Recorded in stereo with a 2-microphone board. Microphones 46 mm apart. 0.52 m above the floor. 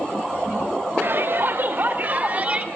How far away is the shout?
About 1.8 m.